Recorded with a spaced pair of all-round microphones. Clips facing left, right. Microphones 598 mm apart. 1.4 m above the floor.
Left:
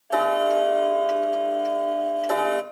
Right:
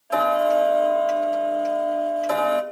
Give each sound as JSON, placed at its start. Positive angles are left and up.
{"t": 0.1, "sound": "ticking", "side_deg": -35, "distance_m": 1.1}